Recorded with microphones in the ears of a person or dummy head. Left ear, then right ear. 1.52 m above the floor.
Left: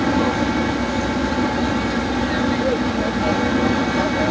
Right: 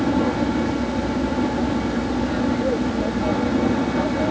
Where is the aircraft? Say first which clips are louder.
Left 2 dB; 70° left (ahead or behind).